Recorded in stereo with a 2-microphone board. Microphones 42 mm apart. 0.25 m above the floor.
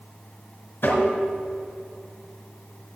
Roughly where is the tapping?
Left.